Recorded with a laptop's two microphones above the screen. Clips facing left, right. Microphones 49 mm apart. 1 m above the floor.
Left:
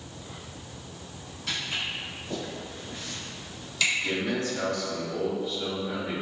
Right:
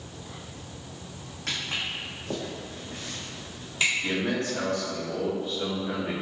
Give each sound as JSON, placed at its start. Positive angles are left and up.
{"t": 1.5, "sound": "footsteps", "side_deg": -60, "distance_m": 2.0}
{"t": 4.0, "sound": "a man speaking", "side_deg": -65, "distance_m": 1.4}